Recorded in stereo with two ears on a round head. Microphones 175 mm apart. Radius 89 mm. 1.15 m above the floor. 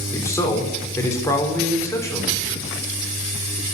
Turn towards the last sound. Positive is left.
turn(degrees=15)  # may be behind; listen again after turning